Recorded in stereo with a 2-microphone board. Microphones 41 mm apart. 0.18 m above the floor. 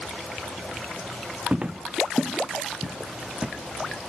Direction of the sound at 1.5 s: 30° right (ahead or behind).